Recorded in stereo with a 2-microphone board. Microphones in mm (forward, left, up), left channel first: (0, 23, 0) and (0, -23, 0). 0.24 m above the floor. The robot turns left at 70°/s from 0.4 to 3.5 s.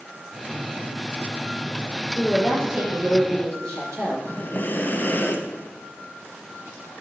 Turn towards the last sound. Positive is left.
turn(degrees=40)  # may be behind; listen again after turning